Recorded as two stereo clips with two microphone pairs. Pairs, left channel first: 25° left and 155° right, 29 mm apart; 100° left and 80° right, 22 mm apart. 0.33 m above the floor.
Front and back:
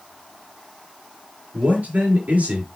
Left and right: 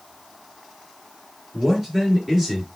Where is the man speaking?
150° right, 5 m.